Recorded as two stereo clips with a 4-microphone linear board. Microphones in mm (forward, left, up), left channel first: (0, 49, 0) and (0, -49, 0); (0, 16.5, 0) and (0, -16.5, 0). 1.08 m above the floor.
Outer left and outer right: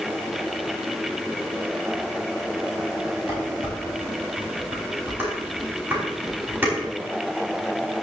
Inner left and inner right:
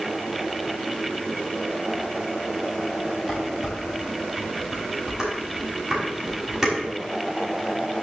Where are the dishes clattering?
20° right (ahead or behind), 5 m.